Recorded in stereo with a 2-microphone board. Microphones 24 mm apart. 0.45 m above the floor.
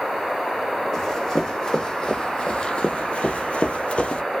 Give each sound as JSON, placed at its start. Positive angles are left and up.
{"t": 0.9, "sound": "running footsteps", "side_deg": 20, "distance_m": 1.5}